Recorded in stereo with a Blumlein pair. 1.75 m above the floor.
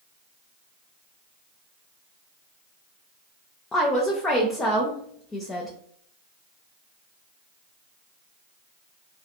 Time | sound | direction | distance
3.7 | a woman speaking | 15° left | 0.5 m